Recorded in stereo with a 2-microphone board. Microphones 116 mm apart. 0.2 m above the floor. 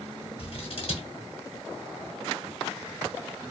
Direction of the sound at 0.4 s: 55° left (ahead or behind).